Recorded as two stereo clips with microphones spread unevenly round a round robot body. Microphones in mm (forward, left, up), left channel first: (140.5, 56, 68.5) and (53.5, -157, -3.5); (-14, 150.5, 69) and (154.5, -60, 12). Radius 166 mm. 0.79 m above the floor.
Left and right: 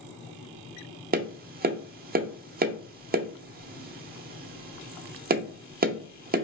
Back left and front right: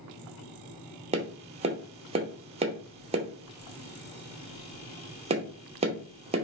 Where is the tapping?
105° right, 0.7 m.